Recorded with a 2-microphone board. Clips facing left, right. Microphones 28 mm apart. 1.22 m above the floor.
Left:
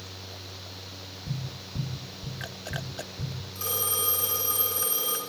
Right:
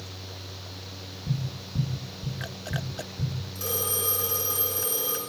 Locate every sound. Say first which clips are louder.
1.3 s tapping: right 5 dB; 15° right (ahead or behind), 3 m
3.5 s a phone ringing: even; 20° left (ahead or behind), 7 m